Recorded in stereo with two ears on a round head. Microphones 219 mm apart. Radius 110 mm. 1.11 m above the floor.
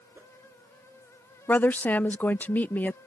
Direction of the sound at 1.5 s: 5° left (ahead or behind).